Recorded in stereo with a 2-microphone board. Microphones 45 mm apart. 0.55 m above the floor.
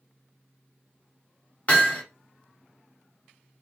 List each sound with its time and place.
1.7 s hammering: 30° left (ahead or behind), 1.9 m